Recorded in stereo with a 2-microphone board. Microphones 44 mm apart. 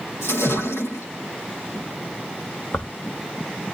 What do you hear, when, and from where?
0.2 s a splash: 70° left (ahead or behind), 7.5 m
2.7 s tearing paper: 55° left (ahead or behind), 1.6 m